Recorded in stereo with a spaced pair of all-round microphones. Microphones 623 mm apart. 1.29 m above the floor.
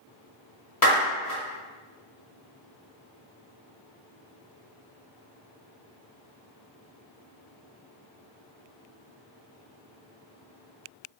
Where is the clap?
35° left (ahead or behind), 1.0 m.